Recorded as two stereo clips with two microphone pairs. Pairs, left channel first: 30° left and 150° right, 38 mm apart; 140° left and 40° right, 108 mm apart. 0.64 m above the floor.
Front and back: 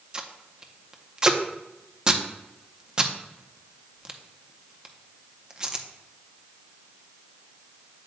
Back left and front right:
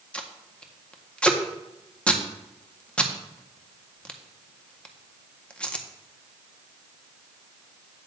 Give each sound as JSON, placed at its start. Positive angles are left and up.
{"t": 0.1, "sound": "tape being pulled", "azimuth_deg": -150, "distance_m": 0.6}